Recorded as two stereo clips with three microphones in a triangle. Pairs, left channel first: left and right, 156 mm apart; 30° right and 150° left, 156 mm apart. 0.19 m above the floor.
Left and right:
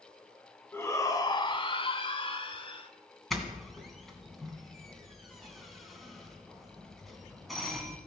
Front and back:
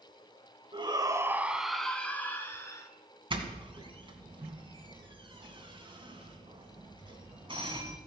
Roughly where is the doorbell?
Behind.